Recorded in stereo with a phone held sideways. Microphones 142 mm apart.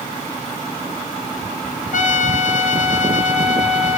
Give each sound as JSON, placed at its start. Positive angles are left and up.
{"t": 1.9, "sound": "a trumpet", "side_deg": 60, "distance_m": 0.9}